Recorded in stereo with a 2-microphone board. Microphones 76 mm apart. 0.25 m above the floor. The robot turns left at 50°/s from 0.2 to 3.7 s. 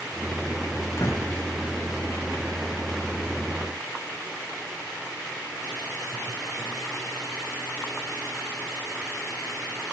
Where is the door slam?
40° left (ahead or behind), 9.5 m; by 1.3 s 50° left (ahead or behind), 9.5 m.